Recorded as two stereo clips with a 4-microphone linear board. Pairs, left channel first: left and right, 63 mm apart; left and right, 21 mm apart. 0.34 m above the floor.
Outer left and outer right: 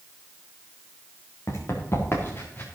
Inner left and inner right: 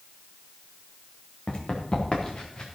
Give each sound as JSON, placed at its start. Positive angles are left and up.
{"t": 1.5, "sound": "running footsteps", "side_deg": 50, "distance_m": 3.5}